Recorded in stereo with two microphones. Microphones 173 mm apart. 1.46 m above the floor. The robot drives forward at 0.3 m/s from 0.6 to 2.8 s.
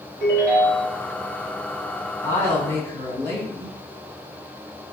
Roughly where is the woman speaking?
Centre.